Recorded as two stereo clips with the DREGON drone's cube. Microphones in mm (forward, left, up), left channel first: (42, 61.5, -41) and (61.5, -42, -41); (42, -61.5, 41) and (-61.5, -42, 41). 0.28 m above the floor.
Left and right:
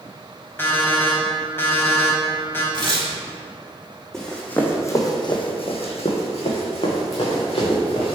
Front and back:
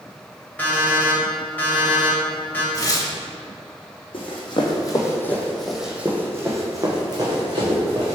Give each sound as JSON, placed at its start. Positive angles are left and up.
{"t": 0.6, "sound": "an alarm clock", "azimuth_deg": 50, "distance_m": 0.9}
{"t": 2.7, "sound": "tearing paper", "azimuth_deg": -60, "distance_m": 0.7}
{"t": 4.1, "sound": "running footsteps", "azimuth_deg": 15, "distance_m": 1.0}